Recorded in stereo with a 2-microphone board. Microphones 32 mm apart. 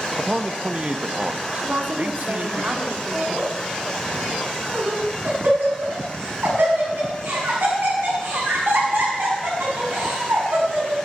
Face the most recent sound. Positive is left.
turn(degrees=-75)  # may be behind; listen again after turning